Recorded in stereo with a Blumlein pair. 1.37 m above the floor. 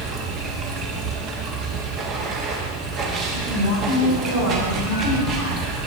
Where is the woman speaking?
60° right, 4.5 m.